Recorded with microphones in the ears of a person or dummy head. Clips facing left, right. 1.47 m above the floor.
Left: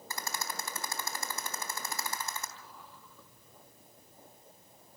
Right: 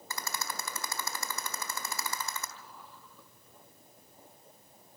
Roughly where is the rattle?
Right.